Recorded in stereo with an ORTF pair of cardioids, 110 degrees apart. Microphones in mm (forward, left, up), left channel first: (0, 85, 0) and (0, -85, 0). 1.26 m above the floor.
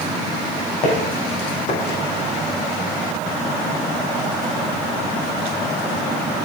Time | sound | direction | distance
0.8 | footsteps | 50° left | 4 m